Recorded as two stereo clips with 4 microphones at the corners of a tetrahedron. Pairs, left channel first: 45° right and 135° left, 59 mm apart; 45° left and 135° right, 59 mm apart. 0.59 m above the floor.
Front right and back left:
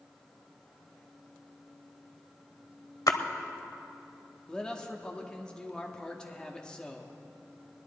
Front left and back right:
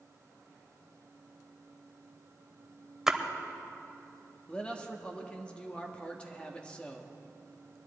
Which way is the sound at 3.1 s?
55° right.